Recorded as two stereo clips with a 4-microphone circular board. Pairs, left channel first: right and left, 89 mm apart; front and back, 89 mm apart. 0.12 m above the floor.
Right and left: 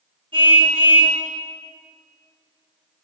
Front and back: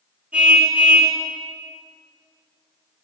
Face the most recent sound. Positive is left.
turn(degrees=105)